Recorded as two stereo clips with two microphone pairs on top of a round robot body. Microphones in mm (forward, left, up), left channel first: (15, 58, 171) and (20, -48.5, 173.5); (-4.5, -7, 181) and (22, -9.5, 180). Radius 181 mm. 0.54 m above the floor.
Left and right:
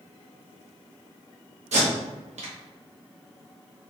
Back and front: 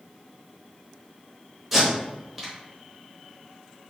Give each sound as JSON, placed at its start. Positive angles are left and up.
{"t": 1.7, "sound": "tape being pulled", "azimuth_deg": -90, "distance_m": 1.5}